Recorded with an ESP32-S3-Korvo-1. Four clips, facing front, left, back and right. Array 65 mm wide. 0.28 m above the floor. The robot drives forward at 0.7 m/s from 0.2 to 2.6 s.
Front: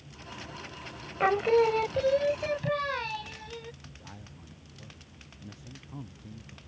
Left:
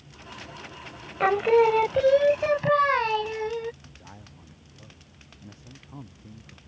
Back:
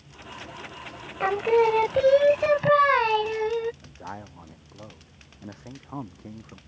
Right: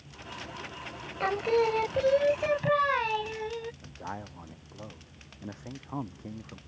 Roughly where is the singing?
Left.